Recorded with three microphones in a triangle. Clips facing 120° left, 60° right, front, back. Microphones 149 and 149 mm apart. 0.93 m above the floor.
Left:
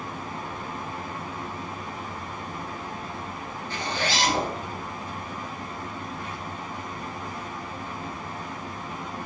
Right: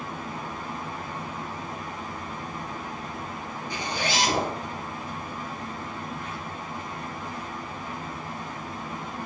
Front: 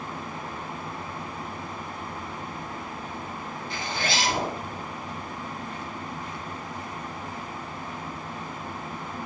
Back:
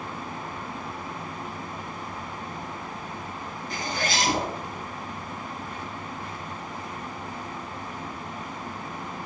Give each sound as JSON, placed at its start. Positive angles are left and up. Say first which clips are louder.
{"t": 3.7, "sound": "a zipper", "louder": "even, back 1 dB", "azimuth_deg": -135, "distance_m": 3.0}